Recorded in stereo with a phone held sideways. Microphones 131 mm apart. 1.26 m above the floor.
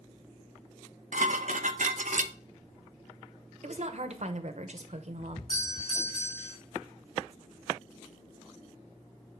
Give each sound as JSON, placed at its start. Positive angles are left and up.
{"t": 1.1, "sound": "dishes clattering", "side_deg": -75, "distance_m": 0.6}
{"t": 3.6, "sound": "a woman speaking", "side_deg": -60, "distance_m": 0.9}
{"t": 5.5, "sound": "a doorbell", "side_deg": 50, "distance_m": 5.0}